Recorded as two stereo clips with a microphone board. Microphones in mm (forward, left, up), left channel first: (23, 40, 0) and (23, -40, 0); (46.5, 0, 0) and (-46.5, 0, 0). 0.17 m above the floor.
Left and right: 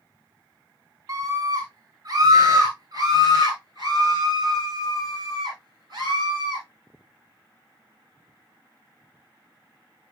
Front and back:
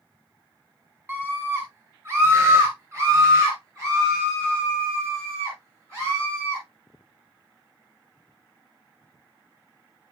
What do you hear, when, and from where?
1.1 s a scream: 125° right, 2 m